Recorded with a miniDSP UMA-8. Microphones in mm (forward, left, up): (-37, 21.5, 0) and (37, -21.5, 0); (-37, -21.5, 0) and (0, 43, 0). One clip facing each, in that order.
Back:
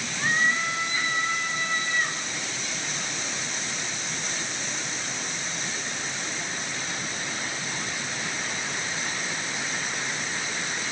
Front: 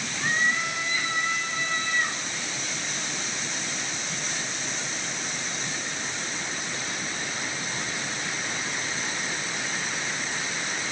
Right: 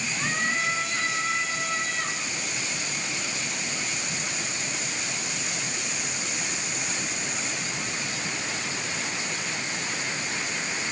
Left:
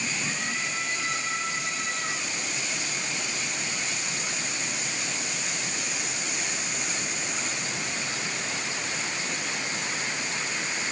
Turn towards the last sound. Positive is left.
turn(degrees=-135)